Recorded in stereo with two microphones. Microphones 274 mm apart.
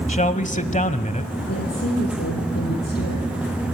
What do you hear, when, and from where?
0.1 s a man speaking: 25° left (ahead or behind), 1.1 m
1.5 s a woman speaking: 55° left (ahead or behind), 7 m